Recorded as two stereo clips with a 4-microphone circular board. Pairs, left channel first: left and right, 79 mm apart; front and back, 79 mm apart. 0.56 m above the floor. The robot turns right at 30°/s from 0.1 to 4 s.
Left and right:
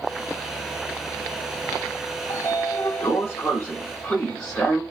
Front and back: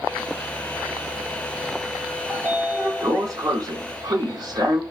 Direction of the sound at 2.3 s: 115° left.